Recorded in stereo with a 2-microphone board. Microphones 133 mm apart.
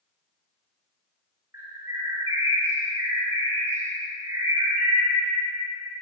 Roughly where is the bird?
Centre.